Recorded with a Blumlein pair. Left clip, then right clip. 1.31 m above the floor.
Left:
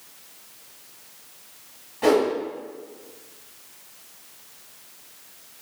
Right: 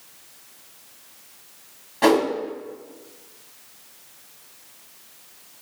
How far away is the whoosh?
About 1.5 m.